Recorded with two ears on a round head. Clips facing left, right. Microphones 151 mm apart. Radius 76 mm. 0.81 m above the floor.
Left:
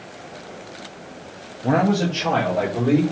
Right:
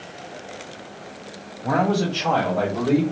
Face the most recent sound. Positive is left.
turn(degrees=15)  # may be behind; listen again after turning